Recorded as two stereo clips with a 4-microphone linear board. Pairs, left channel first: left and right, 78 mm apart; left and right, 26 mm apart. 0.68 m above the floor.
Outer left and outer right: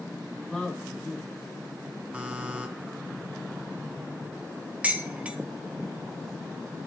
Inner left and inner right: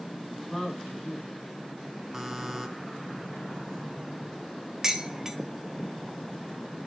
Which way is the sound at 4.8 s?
15° right (ahead or behind).